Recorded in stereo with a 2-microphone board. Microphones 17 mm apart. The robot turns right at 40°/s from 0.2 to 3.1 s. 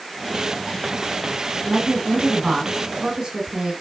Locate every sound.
1.7 s a woman speaking: 105° right, 1.5 m; by 3.7 s 50° right, 1.5 m